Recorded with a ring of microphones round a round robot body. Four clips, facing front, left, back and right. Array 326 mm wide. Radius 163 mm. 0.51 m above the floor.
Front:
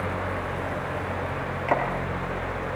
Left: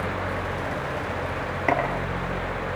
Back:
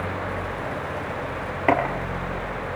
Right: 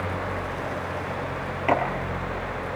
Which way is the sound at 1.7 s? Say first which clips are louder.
Right 1 dB, back 5 dB; 165° left.